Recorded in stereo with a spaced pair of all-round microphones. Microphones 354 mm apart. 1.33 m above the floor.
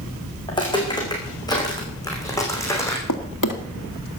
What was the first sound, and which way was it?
Footsteps, 15° left (ahead or behind).